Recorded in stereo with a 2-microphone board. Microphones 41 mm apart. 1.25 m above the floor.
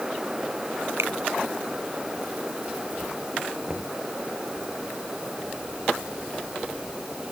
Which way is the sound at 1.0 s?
90° right.